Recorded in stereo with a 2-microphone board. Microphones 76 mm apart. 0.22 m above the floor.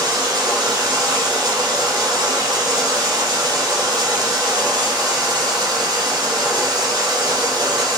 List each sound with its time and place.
0.0 s running water: 70° right (ahead or behind), 1.4 m